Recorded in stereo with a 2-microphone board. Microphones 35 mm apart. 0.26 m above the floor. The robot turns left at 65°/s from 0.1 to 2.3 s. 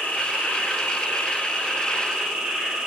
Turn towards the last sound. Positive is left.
turn(degrees=-5)